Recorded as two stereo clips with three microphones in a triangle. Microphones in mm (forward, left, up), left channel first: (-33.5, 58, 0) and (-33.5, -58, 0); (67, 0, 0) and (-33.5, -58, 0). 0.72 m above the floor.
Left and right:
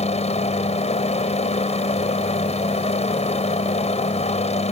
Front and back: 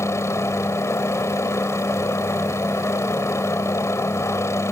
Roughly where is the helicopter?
Left.